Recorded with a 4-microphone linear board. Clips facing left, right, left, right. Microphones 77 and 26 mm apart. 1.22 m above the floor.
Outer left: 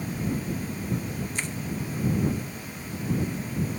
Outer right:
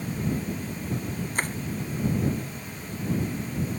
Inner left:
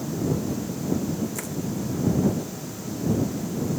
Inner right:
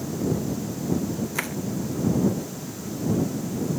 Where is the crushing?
45° right (ahead or behind).